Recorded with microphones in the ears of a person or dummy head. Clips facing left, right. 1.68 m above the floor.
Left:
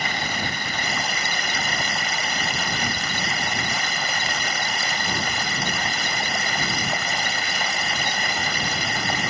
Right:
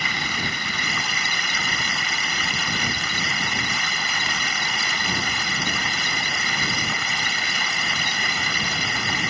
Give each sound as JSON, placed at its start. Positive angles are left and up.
{"t": 0.0, "sound": "running water", "side_deg": 45}